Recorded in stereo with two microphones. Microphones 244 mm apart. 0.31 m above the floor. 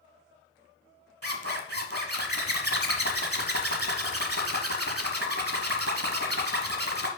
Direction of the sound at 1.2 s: 70° right (ahead or behind).